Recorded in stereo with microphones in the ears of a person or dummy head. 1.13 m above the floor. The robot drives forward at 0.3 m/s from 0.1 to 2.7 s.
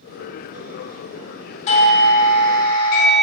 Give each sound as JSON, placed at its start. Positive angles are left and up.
{"t": 1.7, "sound": "a doorbell", "side_deg": 40, "distance_m": 1.4}